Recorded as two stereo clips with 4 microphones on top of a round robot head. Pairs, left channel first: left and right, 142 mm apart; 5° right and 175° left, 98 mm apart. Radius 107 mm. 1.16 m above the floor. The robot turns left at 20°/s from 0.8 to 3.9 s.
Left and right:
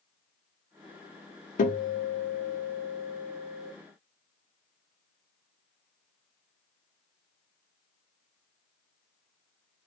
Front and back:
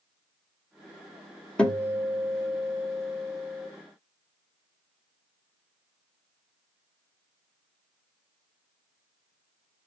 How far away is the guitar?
About 1.4 m.